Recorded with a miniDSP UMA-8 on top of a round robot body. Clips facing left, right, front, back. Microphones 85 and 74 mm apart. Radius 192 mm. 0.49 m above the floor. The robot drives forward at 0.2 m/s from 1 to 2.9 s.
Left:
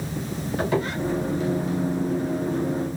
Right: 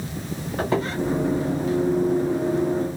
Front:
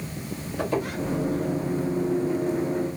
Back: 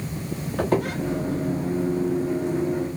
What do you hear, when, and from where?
0.6 s a squeak: 150° right, 0.6 m